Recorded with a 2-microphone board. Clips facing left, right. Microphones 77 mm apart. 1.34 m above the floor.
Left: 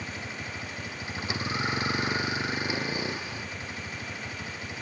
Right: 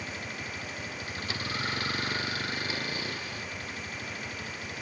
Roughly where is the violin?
No violin in this recording.